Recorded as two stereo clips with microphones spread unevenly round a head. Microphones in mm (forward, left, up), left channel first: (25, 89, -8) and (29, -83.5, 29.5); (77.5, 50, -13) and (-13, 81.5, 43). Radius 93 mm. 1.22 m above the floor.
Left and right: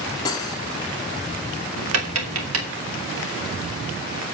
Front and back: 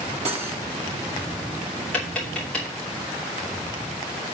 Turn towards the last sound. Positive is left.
turn(degrees=-105)